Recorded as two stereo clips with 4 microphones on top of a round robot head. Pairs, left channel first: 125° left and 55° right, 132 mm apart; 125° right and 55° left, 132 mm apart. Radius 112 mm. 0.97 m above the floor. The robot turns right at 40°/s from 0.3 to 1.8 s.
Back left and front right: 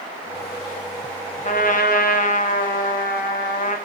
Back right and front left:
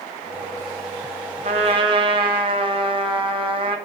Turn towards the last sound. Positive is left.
turn(degrees=110)